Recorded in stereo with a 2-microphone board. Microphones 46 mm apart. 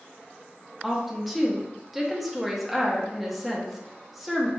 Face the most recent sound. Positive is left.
turn(degrees=0)  # may be behind; listen again after turning